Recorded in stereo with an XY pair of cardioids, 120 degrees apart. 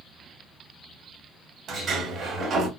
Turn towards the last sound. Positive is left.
turn(degrees=-60)